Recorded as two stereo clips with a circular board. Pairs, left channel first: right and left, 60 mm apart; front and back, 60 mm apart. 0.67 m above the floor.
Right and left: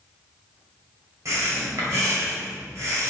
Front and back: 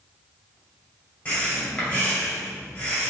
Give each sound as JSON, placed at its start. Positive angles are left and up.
{"t": 1.2, "sound": "breathing", "azimuth_deg": 65, "distance_m": 2.0}